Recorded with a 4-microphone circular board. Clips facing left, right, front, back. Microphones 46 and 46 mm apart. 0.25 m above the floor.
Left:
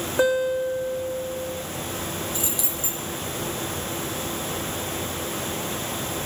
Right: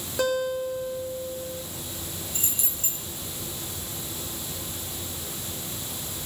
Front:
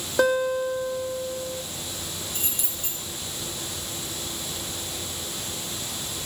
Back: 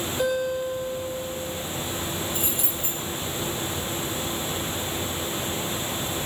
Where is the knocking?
No knocking in this recording.